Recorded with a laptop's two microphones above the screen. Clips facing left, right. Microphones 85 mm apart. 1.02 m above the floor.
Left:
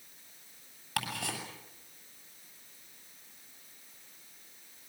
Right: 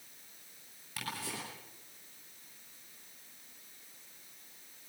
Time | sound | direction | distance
1.0 | ticking | 85° left | 8 m